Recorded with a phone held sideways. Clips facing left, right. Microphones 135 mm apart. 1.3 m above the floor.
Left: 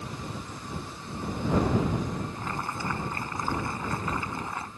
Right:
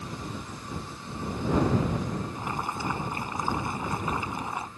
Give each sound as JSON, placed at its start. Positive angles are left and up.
{"t": 2.4, "sound": "boiling", "side_deg": -20}